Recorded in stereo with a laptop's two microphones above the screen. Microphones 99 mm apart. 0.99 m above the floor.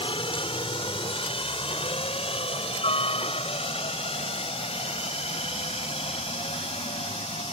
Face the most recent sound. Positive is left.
turn(degrees=80)